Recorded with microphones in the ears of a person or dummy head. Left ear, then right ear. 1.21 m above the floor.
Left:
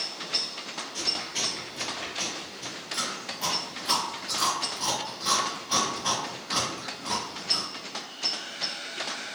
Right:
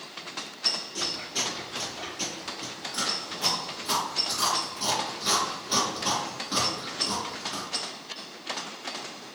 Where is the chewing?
15° left (ahead or behind), 1.1 m.